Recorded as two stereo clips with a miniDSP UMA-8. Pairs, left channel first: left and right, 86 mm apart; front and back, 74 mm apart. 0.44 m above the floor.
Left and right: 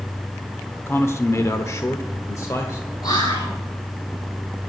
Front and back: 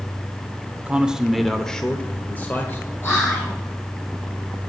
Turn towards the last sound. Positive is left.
turn(degrees=55)